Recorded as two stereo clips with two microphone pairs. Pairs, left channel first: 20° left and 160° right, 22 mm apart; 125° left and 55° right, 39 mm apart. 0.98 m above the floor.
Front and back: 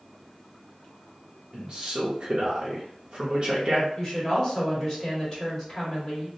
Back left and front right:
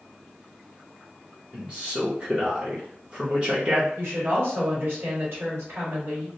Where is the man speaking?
120° right, 0.6 m.